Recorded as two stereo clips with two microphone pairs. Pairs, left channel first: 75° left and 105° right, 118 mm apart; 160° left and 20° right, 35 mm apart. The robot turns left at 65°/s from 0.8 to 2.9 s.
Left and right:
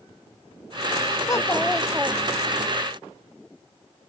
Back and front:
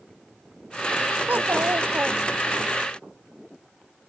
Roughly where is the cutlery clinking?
No cutlery clinking in this recording.